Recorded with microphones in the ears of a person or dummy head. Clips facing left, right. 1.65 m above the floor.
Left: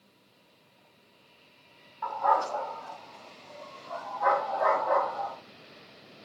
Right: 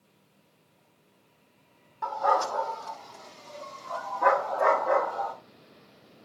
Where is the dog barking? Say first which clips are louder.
Right 1 dB; 50° right (ahead or behind), 2 m; by 5.3 s 30° right (ahead or behind), 2 m.